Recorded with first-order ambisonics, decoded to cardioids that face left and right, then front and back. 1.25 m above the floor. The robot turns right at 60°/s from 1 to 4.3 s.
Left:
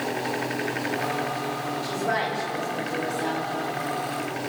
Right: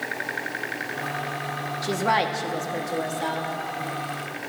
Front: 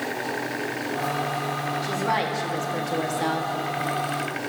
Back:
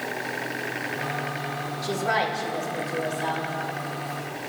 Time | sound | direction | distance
1.8 | a woman speaking | 100° right | 1.9 m